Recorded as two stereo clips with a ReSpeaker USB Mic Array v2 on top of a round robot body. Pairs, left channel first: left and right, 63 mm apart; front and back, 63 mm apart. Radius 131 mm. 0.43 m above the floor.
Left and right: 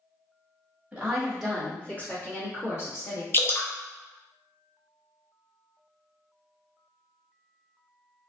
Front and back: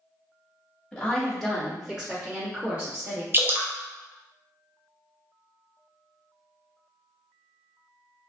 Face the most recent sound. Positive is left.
turn(degrees=135)